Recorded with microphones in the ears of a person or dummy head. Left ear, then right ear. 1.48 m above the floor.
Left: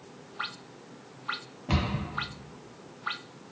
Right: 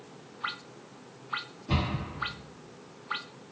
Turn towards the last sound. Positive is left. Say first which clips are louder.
# left 1 dB
turn(degrees=50)  # may be behind; listen again after turning